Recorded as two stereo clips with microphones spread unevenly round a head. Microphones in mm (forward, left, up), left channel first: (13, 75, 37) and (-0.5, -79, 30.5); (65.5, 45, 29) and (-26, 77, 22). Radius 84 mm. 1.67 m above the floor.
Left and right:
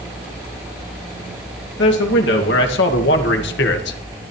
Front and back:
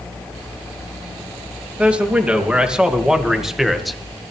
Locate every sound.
1.8 s a man speaking: 85° left, 3 m; by 4.0 s 70° left, 1.8 m